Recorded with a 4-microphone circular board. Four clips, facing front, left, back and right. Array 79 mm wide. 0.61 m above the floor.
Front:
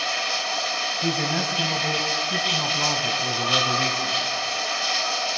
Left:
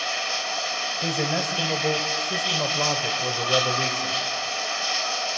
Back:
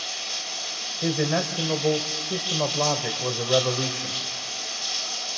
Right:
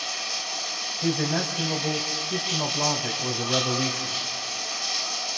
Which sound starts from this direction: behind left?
A man speaking, at 1.0 s.